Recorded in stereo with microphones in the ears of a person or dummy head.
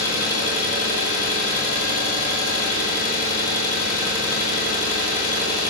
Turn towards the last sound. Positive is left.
turn(degrees=65)  # may be behind; listen again after turning